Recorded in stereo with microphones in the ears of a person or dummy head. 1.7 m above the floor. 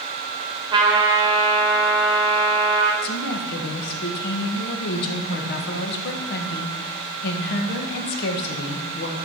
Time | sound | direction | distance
0.7 | a trumpet | 20° right (ahead or behind) | 2.5 m
3.0 | a woman speaking | 60° left (ahead or behind) | 1.7 m